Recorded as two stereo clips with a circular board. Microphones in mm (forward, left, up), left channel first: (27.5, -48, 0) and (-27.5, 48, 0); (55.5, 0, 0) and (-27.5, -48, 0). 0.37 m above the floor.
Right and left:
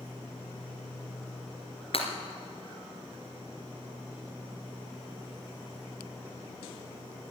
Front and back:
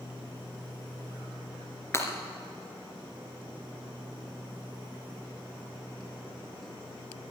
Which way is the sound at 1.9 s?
35° right.